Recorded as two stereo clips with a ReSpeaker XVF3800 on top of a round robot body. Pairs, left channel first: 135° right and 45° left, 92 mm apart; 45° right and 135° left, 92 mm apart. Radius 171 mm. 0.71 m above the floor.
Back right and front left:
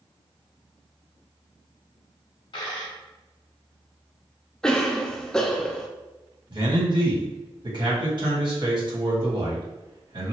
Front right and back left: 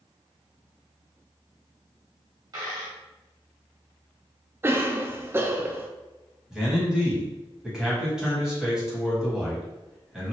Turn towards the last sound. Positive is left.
turn(degrees=55)